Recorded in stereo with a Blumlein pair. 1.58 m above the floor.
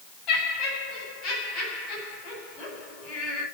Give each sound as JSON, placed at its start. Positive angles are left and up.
{"t": 0.3, "sound": "laughter", "azimuth_deg": 35, "distance_m": 9.5}